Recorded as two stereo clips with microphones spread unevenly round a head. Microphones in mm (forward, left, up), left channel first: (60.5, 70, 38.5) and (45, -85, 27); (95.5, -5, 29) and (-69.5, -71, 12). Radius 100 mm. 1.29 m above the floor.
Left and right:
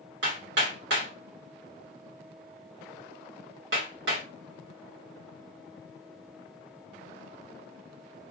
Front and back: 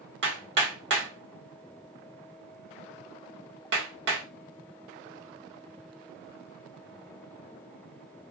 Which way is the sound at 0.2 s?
135° right.